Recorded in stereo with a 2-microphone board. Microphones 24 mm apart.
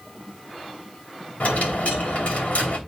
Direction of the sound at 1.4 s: 75° left (ahead or behind).